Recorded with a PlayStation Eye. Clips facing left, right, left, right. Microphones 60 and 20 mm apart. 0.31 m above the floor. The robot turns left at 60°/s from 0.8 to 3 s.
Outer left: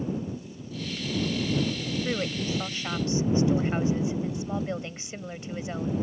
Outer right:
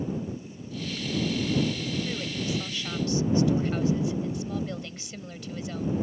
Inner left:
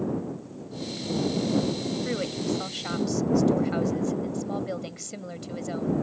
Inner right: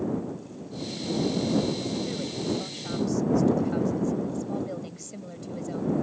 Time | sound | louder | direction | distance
2.0 | a woman speaking | outer left 2 dB, inner left 2 dB | 100° left | ?